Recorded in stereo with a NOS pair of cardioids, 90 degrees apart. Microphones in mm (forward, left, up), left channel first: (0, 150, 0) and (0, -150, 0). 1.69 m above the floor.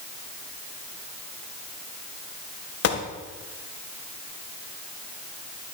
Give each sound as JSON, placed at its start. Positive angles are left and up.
{"t": 2.8, "sound": "a gunshot", "azimuth_deg": 55, "distance_m": 1.8}